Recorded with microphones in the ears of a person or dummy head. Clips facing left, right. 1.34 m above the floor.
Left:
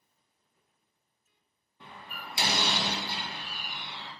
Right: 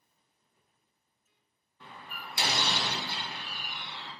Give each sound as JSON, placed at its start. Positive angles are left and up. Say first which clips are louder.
{"t": 1.8, "sound": "a door slam", "louder": "left 1 dB", "side_deg": 15, "distance_m": 0.8}